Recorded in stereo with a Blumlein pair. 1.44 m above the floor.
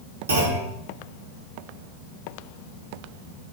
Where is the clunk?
65° right, 0.8 m.